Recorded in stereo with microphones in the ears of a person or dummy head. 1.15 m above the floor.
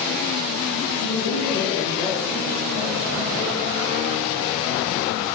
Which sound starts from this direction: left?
A man speaking, at 1.0 s.